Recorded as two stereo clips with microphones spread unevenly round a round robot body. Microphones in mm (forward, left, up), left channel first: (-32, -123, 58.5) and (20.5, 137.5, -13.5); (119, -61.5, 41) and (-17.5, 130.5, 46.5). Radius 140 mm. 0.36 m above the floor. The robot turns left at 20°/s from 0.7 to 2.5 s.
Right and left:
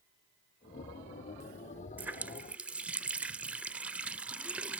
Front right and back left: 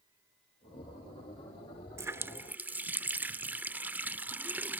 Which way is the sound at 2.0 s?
60° left.